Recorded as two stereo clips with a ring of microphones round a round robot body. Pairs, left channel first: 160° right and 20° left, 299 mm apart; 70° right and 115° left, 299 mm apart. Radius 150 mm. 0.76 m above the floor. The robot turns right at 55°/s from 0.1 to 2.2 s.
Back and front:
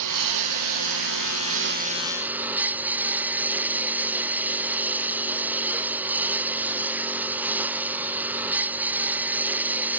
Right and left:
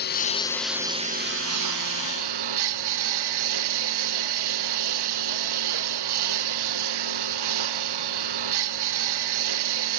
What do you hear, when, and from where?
0.0 s a lawn mower: 10° right; by 10.0 s 105° left